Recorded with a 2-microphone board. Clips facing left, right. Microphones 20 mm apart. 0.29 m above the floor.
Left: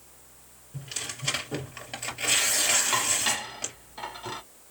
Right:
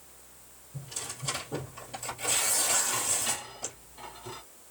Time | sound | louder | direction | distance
0.7 | tearing paper | left 4 dB | 60° left (ahead or behind) | 3 m
2.9 | dishes clattering | left 6 dB | 50° left (ahead or behind) | 1.0 m